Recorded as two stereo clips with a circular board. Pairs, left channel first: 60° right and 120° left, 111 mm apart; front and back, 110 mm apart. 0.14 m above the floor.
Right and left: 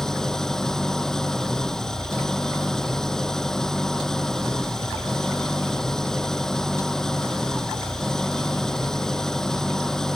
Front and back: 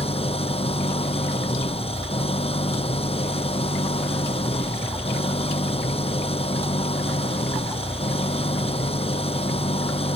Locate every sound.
0.0 s an engine running: 25° left